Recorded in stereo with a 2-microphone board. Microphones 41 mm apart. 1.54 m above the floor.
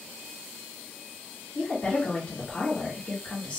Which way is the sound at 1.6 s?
30° left (ahead or behind).